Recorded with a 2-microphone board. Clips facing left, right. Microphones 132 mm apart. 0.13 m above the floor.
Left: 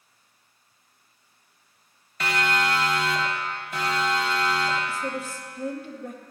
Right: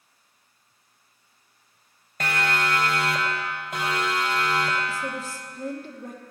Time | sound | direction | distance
2.2 | a siren | 50° right (ahead or behind) | 2.5 m
4.9 | a woman speaking | 40° right (ahead or behind) | 3 m